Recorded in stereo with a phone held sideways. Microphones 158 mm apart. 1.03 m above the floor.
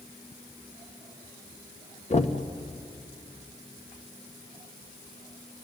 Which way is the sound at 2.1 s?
45° left (ahead or behind).